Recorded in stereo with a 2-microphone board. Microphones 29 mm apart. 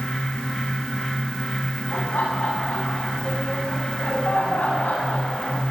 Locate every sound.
1.9 s laughter: 65° left (ahead or behind), 10 m; by 5.6 s 75° left (ahead or behind), 9.5 m